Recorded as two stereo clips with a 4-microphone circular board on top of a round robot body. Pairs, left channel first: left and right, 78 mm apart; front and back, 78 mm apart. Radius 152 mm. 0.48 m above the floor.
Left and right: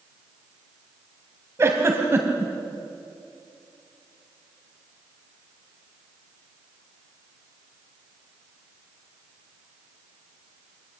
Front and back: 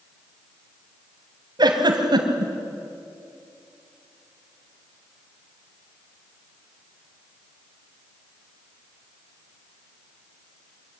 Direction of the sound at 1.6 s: 150° right.